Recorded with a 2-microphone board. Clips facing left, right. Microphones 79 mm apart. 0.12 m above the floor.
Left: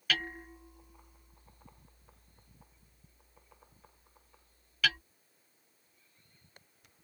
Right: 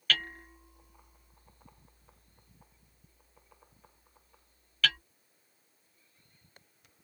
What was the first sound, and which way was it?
Hammering, 10° left (ahead or behind).